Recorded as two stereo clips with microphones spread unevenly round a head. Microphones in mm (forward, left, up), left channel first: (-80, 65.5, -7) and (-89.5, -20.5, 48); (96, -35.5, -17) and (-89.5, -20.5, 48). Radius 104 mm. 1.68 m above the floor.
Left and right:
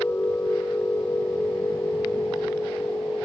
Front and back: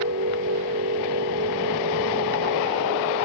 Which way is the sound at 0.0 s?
155° left.